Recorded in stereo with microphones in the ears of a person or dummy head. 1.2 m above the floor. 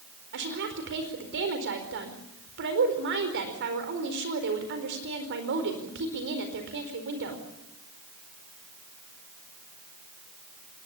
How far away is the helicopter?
I don't hear a helicopter.